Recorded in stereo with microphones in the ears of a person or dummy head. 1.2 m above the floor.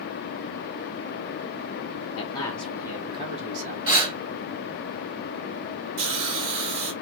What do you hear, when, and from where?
2.2 s a man speaking: 35° left (ahead or behind), 0.7 m; by 3.8 s 45° right (ahead or behind), 1.2 m
3.9 s breathing: 30° right (ahead or behind), 2 m
6.0 s a hiss: 55° right (ahead or behind), 1.0 m